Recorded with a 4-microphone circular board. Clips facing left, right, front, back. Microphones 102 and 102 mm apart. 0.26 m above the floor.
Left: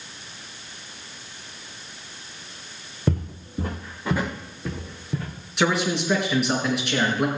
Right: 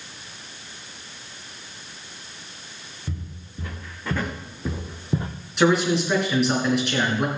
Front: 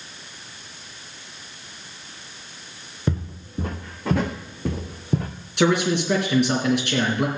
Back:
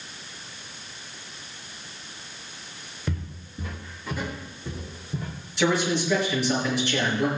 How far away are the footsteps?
About 1.5 m.